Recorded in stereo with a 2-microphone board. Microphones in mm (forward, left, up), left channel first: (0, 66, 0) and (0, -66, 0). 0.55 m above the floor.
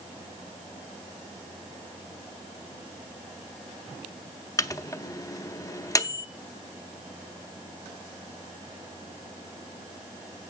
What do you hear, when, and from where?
4.6 s a microwave: 25° left (ahead or behind), 0.5 m